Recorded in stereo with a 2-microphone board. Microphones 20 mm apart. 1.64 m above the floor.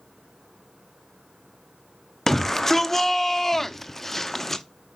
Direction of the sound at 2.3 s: 20° left (ahead or behind).